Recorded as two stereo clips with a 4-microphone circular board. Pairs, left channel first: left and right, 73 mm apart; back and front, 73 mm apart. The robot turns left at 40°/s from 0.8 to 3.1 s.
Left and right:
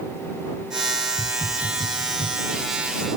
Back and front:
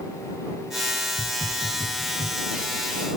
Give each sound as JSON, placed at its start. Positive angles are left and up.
{"t": 1.2, "sound": "a hiss", "azimuth_deg": 125}